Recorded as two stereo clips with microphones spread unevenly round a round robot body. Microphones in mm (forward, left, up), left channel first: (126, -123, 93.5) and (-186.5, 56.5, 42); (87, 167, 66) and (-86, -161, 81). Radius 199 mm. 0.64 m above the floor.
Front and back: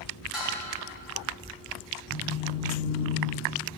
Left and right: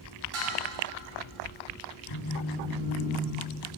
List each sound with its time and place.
0.3 s dishes clattering: 120° right, 4 m
2.1 s a phone buzzing: 25° left, 3 m